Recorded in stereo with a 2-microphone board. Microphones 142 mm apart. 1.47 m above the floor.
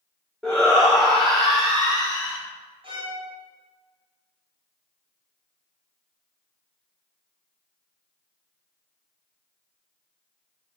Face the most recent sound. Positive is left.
turn(degrees=-40)  # may be behind; listen again after turning